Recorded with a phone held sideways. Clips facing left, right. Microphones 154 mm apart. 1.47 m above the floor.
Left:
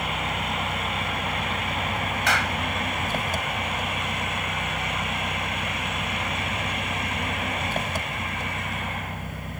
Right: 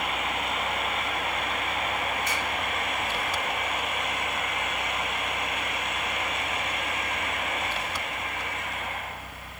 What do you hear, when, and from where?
0.0 s an engine running: 50° left (ahead or behind)
2.3 s a clap: 80° left